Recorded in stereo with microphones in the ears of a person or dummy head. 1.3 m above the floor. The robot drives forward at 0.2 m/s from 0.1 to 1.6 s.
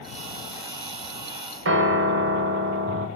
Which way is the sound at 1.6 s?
60° right (ahead or behind).